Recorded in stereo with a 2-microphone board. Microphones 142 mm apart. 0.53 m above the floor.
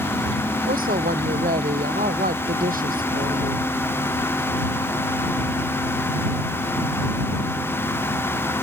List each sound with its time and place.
0.7 s a woman speaking: 85° right